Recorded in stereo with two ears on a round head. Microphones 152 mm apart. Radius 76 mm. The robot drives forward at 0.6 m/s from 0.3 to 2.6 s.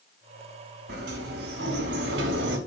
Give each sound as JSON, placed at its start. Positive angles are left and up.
{"t": 0.9, "sound": "a sliding door", "side_deg": -65, "distance_m": 5.5}